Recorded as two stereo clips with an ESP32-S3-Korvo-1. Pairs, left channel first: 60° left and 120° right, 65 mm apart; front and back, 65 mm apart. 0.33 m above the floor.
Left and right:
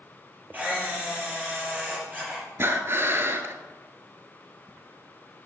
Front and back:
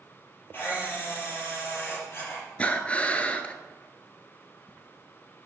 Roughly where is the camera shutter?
Ahead right.